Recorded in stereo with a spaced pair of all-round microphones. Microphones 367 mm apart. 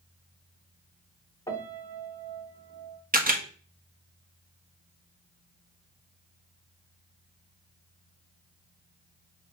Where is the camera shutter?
25° right (ahead or behind), 0.9 m.